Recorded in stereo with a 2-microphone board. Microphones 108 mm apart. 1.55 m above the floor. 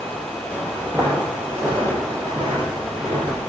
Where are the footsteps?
10° right (ahead or behind), 1.8 m; by 3.4 s 45° right (ahead or behind), 2.5 m.